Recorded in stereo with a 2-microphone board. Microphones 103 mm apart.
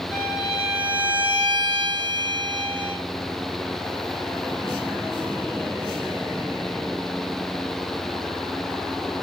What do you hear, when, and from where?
0.1 s a violin: 25° right (ahead or behind), 5.5 m